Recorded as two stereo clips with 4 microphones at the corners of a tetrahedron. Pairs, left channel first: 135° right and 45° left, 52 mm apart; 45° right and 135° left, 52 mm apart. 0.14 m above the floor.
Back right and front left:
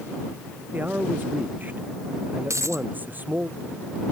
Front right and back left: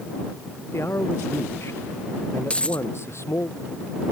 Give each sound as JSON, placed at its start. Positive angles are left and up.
{"t": 0.7, "sound": "a man speaking", "azimuth_deg": -10}
{"t": 2.5, "sound": "a dropped coin", "azimuth_deg": 25}